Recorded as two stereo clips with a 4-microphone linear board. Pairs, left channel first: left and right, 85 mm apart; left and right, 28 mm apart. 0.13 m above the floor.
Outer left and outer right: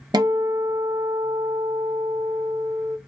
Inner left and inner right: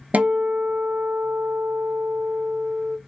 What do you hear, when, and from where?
0.1 s a guitar: 55° right (ahead or behind), 0.6 m